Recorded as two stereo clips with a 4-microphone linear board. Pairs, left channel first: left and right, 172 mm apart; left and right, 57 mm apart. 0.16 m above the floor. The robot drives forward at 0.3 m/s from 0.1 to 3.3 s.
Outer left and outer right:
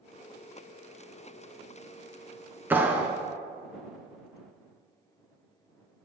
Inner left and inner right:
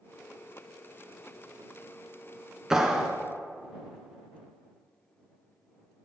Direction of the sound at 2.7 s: 10° right (ahead or behind).